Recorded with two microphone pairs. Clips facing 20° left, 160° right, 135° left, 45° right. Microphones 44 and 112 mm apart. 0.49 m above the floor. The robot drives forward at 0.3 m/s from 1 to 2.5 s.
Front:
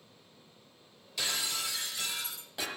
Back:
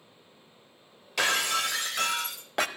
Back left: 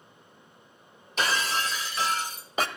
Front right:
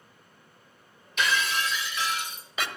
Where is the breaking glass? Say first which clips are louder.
Back 9 dB, even; 170° right, 0.8 m; by 2.7 s 175° right, 1.2 m.